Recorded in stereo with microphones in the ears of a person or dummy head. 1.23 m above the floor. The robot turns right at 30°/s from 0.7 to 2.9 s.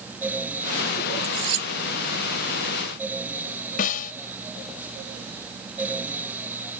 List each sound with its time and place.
1.2 s cutlery clinking: 75° right (ahead or behind); by 1.7 s 85° right
3.8 s a snare drum: 50° left (ahead or behind)